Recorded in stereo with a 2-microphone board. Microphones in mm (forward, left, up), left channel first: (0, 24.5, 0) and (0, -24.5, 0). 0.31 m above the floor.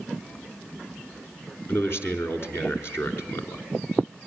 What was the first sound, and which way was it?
A man speaking, 55° left (ahead or behind).